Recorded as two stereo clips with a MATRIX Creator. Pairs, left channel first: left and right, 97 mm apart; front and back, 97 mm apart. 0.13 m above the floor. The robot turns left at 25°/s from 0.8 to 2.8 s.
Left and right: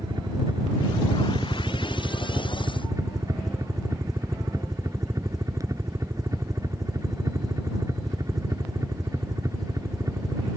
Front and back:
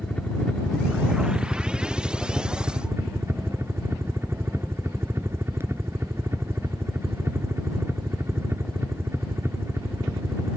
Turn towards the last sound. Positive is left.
turn(degrees=-125)